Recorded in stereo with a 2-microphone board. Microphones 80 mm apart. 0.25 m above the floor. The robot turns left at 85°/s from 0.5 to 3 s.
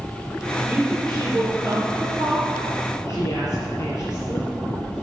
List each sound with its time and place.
0.7 s a woman speaking: 25° right (ahead or behind), 4.5 m; by 4.5 s 45° left (ahead or behind), 4.5 m